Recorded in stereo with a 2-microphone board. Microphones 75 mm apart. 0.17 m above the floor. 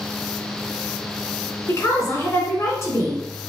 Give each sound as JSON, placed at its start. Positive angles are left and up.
{"t": 1.7, "sound": "a woman speaking", "side_deg": 45, "distance_m": 1.4}